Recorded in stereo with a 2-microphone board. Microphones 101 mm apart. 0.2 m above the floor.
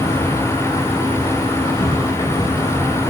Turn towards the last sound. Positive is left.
turn(degrees=45)  # may be behind; listen again after turning